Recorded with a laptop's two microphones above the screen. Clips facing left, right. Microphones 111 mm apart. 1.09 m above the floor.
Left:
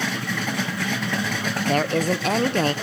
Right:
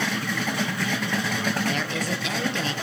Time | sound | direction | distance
1.7 | a woman speaking | 50° left (ahead or behind) | 0.7 m